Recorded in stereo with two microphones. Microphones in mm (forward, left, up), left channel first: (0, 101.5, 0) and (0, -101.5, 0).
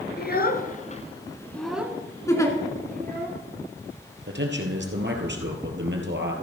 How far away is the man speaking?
About 2.5 m.